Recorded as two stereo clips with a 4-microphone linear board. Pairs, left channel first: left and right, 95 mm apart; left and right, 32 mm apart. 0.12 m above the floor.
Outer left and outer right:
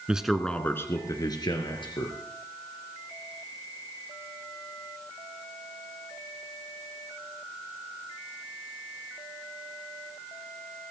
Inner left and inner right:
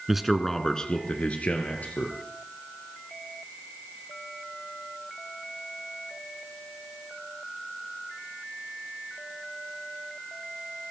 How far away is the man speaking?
About 1.6 m.